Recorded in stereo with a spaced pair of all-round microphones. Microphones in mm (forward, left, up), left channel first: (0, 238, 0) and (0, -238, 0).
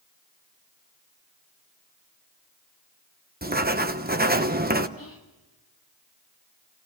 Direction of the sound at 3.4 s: 20° right (ahead or behind).